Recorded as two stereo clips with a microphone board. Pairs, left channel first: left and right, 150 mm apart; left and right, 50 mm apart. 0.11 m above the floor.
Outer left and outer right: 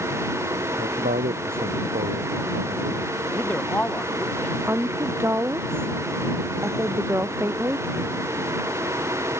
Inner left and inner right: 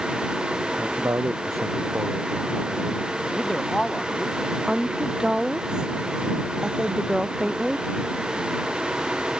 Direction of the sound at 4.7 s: 15° right (ahead or behind).